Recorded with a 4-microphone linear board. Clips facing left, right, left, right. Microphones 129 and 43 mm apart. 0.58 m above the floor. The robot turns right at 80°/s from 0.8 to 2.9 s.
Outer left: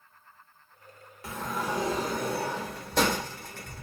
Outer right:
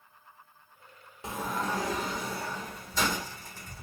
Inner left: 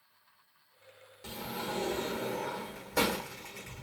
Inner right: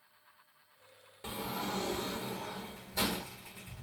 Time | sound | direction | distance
1.2 | a sliding door | 25° right | 0.9 m